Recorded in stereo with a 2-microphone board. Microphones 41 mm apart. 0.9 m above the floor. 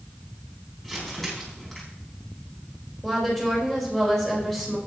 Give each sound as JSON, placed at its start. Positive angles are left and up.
{"t": 0.8, "sound": "crumpling", "side_deg": 10, "distance_m": 4.0}
{"t": 3.0, "sound": "a woman speaking", "side_deg": 5, "distance_m": 4.0}